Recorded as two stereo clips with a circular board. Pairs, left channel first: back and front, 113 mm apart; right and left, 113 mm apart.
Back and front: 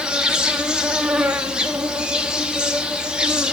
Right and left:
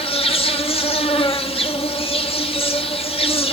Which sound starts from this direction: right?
An insect, at 0.0 s.